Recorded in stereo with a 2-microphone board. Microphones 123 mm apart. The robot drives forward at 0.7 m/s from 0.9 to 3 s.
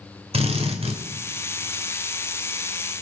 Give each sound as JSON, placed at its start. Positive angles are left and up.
{"t": 0.3, "sound": "a drill", "side_deg": -55, "distance_m": 2.5}